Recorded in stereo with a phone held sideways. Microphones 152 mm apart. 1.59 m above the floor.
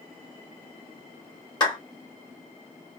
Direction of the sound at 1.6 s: 25° left (ahead or behind).